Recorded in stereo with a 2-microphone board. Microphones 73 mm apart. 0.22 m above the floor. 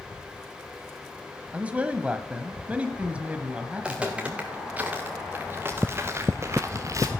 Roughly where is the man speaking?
Centre.